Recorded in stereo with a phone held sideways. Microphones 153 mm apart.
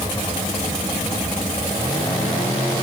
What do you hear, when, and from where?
Only background noise.